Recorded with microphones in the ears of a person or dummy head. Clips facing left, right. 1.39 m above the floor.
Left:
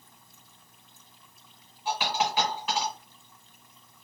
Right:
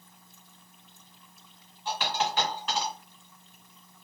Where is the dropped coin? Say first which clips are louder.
Left 2 dB; 15° left (ahead or behind), 1.7 m.